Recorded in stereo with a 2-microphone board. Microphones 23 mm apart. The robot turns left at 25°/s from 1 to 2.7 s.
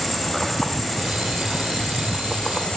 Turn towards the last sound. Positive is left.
turn(degrees=140)